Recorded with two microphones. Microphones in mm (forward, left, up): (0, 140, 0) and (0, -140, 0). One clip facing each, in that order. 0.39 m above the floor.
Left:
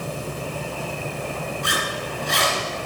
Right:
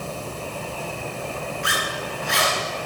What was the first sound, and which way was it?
A zipper, 45° left (ahead or behind).